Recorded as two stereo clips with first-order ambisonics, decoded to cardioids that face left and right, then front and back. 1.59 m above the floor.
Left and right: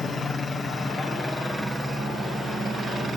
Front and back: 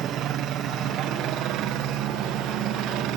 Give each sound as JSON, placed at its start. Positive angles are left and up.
{"t": 0.0, "sound": "a helicopter", "azimuth_deg": 145}